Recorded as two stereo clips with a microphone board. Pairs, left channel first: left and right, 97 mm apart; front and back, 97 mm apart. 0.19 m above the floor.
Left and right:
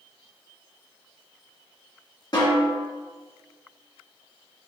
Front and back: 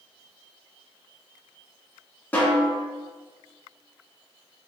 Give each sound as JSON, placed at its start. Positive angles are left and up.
{"t": 2.3, "sound": "a snare drum", "azimuth_deg": 70, "distance_m": 1.7}